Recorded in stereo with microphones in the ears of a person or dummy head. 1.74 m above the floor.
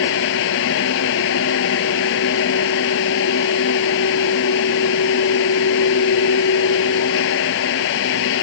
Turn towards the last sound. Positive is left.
turn(degrees=70)  # may be behind; listen again after turning